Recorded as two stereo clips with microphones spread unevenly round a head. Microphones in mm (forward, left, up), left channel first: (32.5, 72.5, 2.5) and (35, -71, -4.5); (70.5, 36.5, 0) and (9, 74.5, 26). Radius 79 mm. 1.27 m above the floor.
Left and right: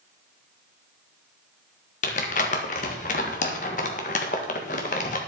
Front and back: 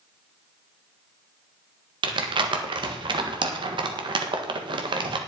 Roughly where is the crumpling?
Behind left.